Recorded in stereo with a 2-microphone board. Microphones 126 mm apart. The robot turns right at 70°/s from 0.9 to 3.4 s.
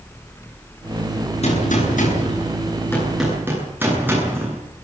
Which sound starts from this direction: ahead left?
A gunshot, at 1.4 s.